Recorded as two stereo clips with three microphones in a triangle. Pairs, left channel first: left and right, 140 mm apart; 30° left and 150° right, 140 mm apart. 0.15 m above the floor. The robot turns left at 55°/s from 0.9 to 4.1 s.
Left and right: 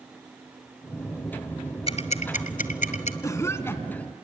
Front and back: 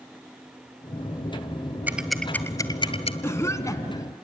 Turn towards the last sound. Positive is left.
turn(degrees=25)